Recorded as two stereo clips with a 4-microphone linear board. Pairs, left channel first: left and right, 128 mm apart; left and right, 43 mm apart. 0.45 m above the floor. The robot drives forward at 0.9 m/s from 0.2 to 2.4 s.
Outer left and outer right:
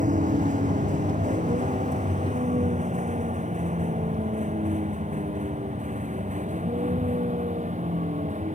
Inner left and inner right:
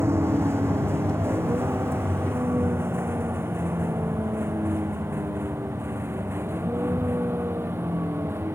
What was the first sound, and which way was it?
A vehicle, 80° right.